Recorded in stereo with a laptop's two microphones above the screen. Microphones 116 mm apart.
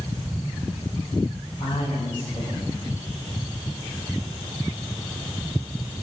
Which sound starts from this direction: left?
A man speaking, at 1.6 s.